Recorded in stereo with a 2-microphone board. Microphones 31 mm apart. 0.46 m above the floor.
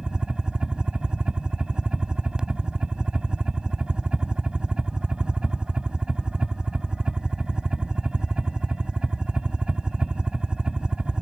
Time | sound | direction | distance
0.0 | a helicopter | 30° right (ahead or behind) | ?